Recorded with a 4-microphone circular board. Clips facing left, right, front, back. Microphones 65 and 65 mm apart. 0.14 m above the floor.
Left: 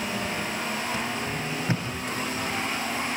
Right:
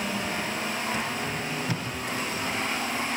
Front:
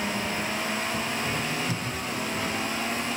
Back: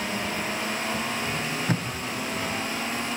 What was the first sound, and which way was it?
Tape being pulled, 150° left.